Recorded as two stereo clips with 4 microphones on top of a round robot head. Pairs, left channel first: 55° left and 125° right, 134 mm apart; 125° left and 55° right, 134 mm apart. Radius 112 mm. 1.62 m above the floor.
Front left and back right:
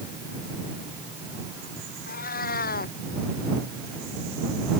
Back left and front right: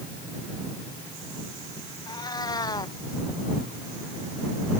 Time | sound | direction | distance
2.1 | a cat meowing | 65° left | ?